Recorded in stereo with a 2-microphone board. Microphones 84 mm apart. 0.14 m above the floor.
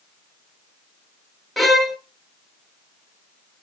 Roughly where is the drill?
I don't hear a drill.